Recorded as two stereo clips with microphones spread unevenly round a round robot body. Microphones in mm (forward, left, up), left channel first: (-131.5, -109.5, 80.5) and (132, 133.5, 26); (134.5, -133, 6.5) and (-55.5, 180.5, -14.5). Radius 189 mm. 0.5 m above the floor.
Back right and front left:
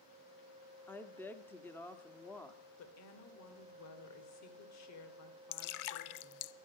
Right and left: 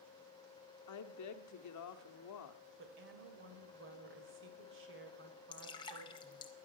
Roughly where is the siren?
No siren in this recording.